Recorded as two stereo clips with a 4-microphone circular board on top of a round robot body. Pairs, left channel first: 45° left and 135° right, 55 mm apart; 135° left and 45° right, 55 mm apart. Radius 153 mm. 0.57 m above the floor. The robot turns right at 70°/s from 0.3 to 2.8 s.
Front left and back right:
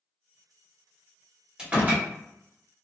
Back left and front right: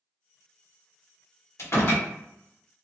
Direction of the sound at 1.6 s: 150° left.